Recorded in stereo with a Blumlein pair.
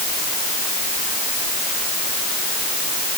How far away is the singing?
No singing in this recording.